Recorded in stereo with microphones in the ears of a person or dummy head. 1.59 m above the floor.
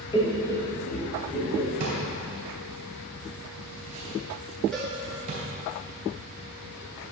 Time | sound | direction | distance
0.1 | laughter | 25° left (ahead or behind) | 1.0 m
1.8 | a drawer | 35° right (ahead or behind) | 2 m
4.7 | a cowbell | centre (ahead or behind) | 1.6 m